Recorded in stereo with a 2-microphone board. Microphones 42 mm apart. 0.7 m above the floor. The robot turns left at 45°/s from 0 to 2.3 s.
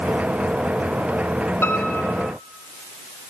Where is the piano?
75° left, 3.5 m; by 2.3 s 45° left, 3.5 m.